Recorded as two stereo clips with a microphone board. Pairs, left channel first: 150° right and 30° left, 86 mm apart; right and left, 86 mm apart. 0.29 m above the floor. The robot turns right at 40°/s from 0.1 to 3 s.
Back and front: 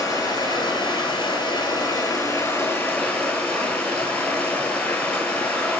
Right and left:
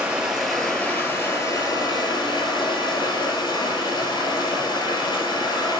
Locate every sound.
0.0 s running water: 165° left, 1.0 m; by 5.8 s 80° right, 1.0 m